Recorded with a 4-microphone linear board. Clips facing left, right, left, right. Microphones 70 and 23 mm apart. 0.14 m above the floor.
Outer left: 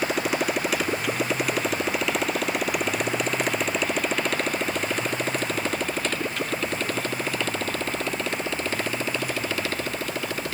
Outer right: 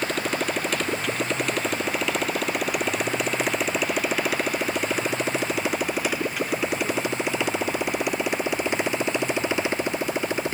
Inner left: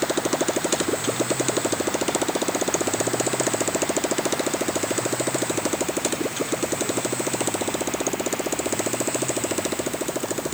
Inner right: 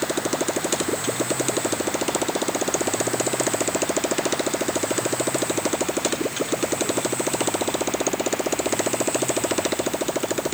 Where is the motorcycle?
5° left (ahead or behind); by 10.5 s 20° right (ahead or behind).